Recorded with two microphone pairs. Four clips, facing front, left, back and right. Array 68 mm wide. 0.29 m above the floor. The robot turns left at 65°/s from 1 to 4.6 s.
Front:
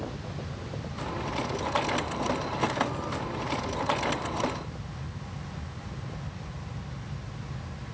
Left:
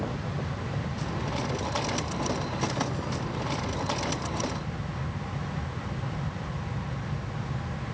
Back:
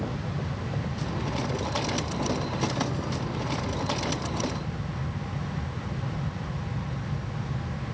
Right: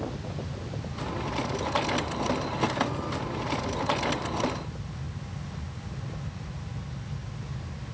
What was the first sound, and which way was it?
Only background noise.